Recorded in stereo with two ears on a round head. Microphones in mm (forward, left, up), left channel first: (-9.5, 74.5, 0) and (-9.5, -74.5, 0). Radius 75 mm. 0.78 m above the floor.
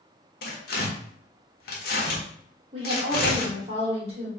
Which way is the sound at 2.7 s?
35° right (ahead or behind).